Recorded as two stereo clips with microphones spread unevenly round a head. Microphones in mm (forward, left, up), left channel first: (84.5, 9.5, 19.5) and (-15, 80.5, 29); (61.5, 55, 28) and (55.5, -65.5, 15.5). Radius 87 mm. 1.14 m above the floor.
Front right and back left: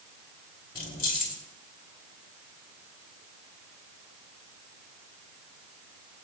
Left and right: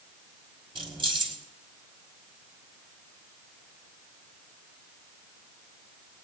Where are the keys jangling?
45° right, 2.5 m.